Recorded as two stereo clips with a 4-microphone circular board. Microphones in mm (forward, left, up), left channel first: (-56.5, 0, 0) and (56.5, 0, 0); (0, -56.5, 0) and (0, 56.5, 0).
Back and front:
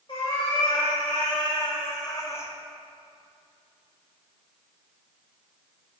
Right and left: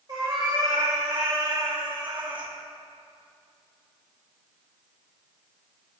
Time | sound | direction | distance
0.1 | a cat meowing | 140° left | 1.9 m